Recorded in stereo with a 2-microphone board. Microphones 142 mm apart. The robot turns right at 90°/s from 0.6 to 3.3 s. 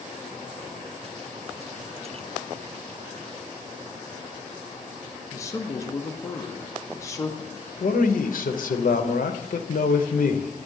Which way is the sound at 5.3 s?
20° left (ahead or behind).